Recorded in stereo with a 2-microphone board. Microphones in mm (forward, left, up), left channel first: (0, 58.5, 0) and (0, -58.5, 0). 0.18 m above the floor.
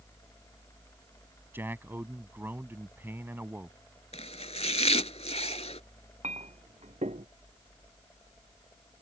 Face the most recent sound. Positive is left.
turn(degrees=-75)  # may be behind; listen again after turning